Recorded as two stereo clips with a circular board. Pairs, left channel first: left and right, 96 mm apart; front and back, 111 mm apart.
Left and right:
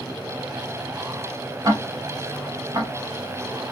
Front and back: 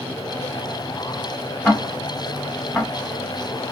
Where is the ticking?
80° right, 1.1 m.